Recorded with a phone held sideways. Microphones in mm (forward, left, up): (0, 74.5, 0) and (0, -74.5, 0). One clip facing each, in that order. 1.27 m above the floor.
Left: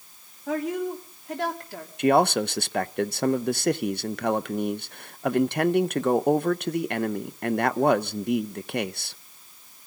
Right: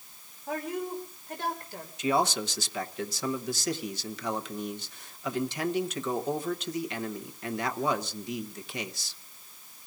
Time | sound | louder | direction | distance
0.5 | a woman speaking | left 6 dB | 85° left | 3 m
2.0 | a man speaking | left 7 dB | 60° left (ahead or behind) | 0.6 m